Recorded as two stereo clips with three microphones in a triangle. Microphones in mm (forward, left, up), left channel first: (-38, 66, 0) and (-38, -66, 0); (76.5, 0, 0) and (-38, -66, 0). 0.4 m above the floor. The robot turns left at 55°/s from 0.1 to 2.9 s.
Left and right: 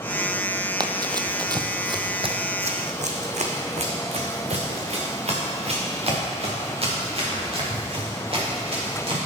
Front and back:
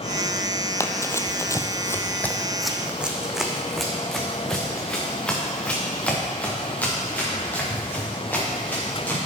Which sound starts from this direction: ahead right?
Running footsteps, at 0.8 s.